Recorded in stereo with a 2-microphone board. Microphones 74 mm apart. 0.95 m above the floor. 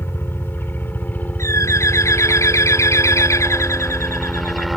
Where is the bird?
40° left (ahead or behind).